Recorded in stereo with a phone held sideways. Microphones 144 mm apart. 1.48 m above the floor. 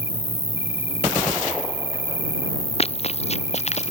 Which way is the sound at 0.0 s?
40° left (ahead or behind).